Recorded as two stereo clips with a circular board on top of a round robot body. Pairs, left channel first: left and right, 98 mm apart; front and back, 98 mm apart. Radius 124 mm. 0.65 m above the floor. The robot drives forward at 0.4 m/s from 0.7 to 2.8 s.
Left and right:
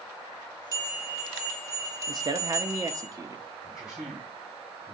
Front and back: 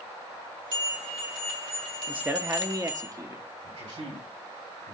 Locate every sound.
0.7 s a bell: 140° right, 4.5 m; by 3.1 s 150° right, 5 m
2.1 s a man speaking: 110° right, 0.8 m; by 3.4 s 130° right, 0.9 m
3.6 s a man speaking: 175° right, 4 m